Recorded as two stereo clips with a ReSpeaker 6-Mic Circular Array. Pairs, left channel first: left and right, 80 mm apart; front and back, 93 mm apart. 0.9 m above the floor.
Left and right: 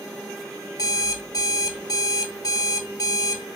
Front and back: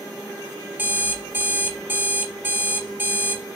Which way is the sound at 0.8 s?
115° left.